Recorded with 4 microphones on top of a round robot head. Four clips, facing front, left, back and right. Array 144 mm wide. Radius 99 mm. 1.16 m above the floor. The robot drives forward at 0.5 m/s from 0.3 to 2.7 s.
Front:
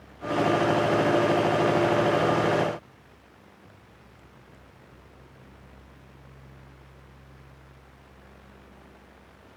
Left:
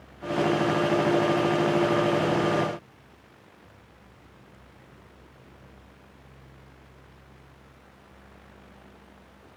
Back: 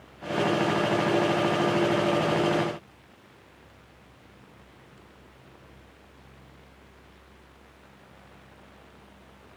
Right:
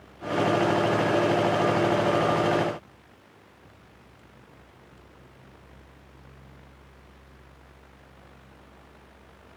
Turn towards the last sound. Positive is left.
No sound to turn to.